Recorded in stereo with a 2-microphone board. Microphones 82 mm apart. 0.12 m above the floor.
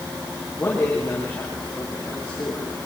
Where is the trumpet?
No trumpet in this recording.